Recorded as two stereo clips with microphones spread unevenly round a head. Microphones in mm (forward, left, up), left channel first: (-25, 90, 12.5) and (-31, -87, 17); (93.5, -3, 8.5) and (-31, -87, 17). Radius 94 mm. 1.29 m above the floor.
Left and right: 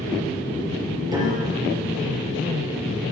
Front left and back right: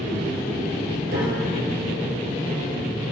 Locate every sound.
1.1 s a piano: 160° right, 4.5 m